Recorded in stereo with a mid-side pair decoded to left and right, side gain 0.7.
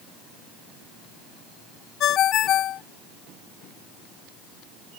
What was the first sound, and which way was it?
A ringtone, 50° left.